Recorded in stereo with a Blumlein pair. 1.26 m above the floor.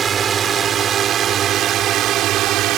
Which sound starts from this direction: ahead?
A drone, at 0.0 s.